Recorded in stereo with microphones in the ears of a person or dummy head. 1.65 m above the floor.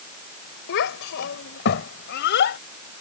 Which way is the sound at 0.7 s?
60° left (ahead or behind).